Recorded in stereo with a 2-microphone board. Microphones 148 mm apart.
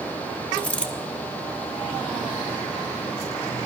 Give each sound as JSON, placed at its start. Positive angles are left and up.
{"t": 0.5, "sound": "a dropped coin", "side_deg": 10, "distance_m": 1.0}